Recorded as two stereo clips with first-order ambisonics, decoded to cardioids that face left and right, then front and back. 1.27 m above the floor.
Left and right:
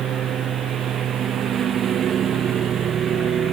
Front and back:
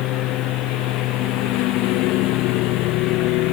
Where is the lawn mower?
35° right; by 3.5 s 30° right.